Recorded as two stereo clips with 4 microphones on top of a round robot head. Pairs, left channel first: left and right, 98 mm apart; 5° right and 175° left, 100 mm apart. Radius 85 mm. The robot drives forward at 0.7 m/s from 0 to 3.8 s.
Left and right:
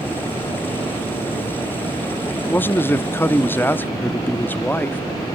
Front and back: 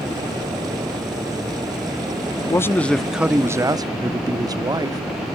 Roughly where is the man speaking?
Ahead left.